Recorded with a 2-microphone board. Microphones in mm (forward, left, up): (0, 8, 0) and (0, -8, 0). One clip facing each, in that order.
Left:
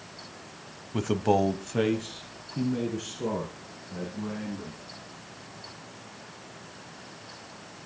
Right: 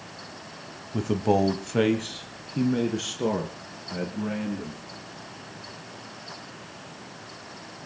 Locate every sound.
0.9 s a man speaking: 25° left (ahead or behind), 1.0 m; by 4.8 s 45° right (ahead or behind), 4.5 m